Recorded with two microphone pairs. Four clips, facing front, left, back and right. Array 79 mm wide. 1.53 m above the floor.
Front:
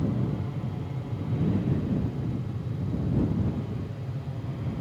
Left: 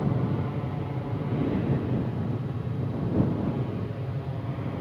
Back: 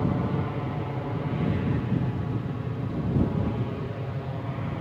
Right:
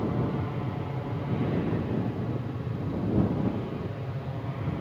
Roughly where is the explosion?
I don't hear an explosion.